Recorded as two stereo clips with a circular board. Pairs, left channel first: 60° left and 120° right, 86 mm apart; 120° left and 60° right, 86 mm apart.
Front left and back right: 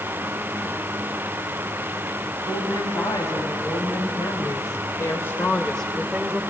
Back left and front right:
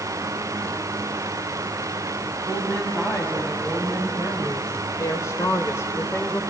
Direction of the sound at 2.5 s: 60° left.